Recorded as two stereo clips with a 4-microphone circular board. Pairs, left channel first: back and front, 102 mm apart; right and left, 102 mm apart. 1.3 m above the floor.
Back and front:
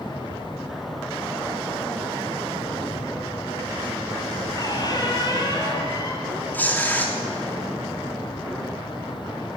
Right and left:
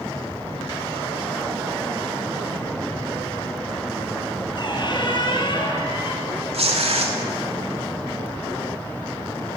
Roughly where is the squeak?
Behind right.